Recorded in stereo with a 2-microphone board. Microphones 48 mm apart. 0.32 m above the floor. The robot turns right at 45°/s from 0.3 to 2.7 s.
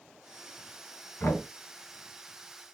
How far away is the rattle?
No rattle in this recording.